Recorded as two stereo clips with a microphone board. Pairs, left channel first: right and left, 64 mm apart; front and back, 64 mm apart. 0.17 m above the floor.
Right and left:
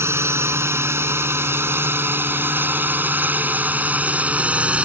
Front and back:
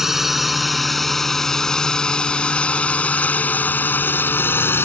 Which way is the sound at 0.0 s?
95° left.